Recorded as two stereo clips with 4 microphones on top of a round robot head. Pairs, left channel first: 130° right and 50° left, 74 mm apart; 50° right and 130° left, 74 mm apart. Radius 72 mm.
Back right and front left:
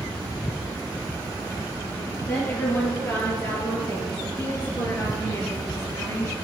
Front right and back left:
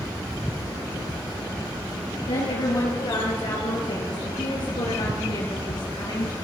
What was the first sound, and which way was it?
A woman speaking, 65° right.